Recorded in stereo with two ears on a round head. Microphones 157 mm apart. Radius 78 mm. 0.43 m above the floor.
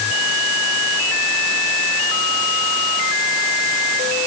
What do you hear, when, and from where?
Only background noise.